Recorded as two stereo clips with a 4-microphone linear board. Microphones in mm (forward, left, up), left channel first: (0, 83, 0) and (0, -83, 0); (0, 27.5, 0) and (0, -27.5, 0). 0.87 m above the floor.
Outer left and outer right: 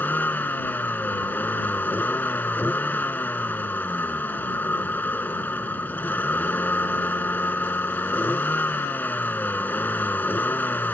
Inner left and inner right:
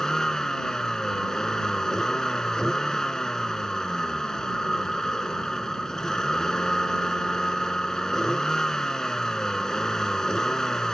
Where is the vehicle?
10° left (ahead or behind).